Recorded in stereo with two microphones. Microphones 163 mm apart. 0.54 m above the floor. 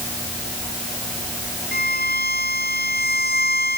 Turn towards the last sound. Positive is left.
turn(degrees=75)  # may be behind; listen again after turning